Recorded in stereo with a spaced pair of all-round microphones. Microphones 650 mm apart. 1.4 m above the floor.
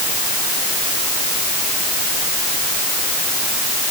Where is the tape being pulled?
No tape being pulled in this recording.